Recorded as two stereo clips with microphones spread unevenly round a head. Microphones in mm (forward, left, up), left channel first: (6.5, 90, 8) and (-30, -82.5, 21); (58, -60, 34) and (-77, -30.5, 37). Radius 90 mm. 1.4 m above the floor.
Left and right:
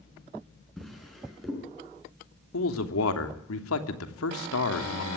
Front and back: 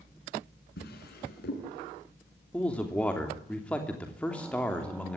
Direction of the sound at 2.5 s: 70° left.